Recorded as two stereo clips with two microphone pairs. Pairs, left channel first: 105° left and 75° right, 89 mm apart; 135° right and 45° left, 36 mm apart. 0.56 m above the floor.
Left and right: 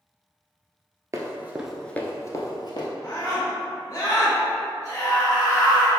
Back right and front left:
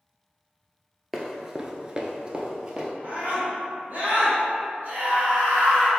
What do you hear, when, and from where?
1.1 s running footsteps: 35° right, 0.7 m; by 2.9 s 110° left, 0.9 m
3.0 s a scream: 70° left, 1.7 m